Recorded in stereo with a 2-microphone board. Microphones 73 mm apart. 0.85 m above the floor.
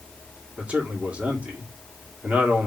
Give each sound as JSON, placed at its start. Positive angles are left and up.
{"t": 0.6, "sound": "a man speaking", "side_deg": -20, "distance_m": 1.7}